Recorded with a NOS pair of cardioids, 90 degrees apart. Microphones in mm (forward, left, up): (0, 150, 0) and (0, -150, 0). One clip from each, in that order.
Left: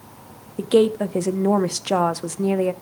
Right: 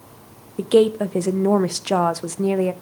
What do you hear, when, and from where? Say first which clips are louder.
0.6 s a woman speaking: right 1 dB; straight ahead, 0.6 m